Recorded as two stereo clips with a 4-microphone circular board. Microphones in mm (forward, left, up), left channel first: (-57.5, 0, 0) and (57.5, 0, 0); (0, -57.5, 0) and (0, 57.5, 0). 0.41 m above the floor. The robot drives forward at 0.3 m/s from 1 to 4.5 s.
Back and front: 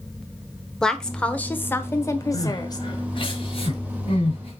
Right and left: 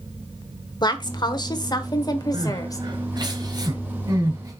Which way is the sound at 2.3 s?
130° left.